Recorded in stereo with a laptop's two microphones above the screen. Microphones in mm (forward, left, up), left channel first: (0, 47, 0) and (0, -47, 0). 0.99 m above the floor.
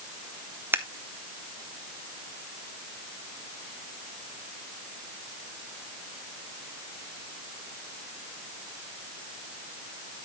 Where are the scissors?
25° right (ahead or behind), 0.8 m.